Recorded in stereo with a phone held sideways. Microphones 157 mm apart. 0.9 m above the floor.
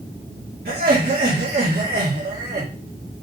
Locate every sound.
0.7 s laughter: 70° right (ahead or behind), 2.5 m